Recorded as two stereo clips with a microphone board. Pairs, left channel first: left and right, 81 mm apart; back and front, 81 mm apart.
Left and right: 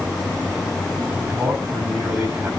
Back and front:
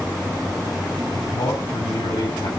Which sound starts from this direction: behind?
A man speaking, at 1.1 s.